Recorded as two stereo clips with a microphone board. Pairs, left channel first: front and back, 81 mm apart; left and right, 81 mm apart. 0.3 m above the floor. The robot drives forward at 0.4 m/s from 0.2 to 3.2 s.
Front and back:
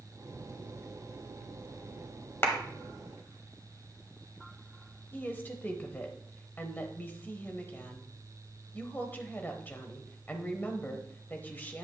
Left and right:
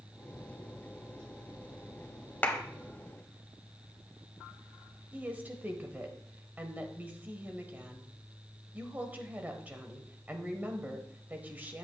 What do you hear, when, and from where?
2.4 s a clap: 40° left, 1.1 m
5.1 s a woman speaking: 40° right, 1.0 m